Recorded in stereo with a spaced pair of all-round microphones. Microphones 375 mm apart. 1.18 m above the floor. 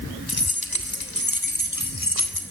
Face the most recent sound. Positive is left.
turn(degrees=55)  # may be behind; listen again after turning